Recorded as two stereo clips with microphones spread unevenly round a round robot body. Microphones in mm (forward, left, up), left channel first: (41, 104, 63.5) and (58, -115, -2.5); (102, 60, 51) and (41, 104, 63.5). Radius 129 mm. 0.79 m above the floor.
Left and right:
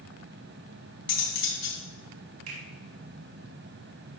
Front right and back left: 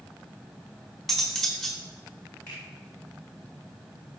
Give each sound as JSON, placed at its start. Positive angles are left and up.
{"t": 1.1, "sound": "cutlery clinking", "azimuth_deg": 55, "distance_m": 4.5}
{"t": 2.5, "sound": "a finger snap", "azimuth_deg": -110, "distance_m": 5.0}